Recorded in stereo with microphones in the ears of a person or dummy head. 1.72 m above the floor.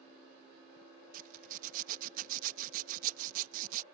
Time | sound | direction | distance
1.1 | a zipper | 50° right (ahead or behind) | ?